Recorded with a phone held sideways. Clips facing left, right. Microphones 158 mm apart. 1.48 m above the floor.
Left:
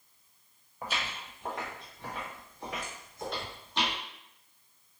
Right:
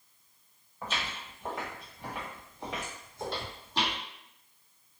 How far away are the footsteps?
About 1.7 m.